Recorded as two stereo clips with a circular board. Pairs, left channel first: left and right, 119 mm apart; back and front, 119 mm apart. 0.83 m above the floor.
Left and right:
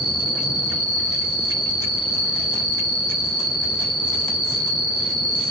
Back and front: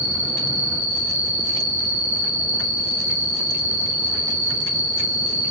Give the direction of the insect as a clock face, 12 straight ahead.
11 o'clock.